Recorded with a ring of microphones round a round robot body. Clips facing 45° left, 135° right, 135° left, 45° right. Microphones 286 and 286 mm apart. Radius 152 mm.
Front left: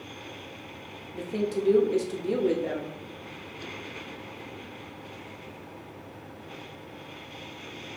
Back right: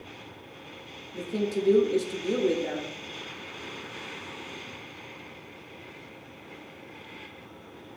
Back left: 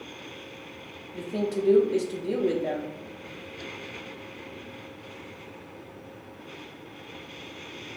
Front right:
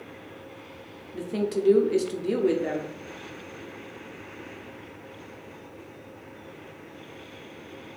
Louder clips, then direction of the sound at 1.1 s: Even, front right 1 dB; 45° right.